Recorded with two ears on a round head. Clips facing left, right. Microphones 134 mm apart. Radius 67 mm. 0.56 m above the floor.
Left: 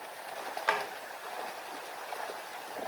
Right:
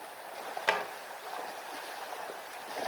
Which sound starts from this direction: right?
A drawer, at 0.7 s.